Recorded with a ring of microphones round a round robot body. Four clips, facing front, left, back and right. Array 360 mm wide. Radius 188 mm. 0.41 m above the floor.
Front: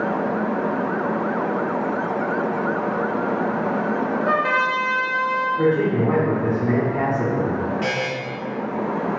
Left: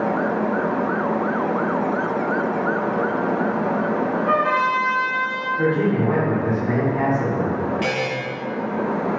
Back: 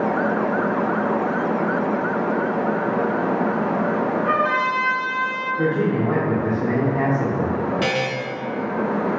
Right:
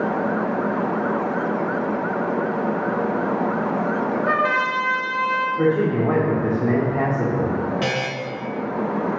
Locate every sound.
4.2 s a trumpet: 45° right, 1.3 m
5.6 s a man speaking: 75° right, 1.1 m
7.8 s a buzzer: 140° right, 1.1 m